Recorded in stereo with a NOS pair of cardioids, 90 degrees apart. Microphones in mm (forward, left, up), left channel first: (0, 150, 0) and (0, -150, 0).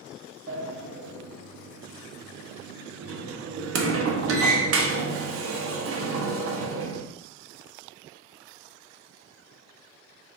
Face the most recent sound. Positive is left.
turn(degrees=-50)